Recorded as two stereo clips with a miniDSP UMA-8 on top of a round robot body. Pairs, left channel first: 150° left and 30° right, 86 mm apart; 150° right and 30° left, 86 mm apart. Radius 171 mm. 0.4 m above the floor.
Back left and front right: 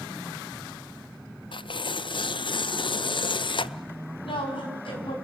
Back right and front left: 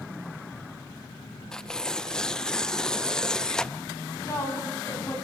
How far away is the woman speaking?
About 5.5 m.